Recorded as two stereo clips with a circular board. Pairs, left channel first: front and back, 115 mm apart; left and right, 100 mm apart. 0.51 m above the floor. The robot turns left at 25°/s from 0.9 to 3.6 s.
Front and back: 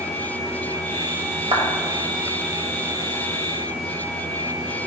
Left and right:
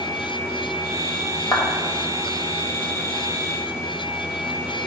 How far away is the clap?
About 1.6 m.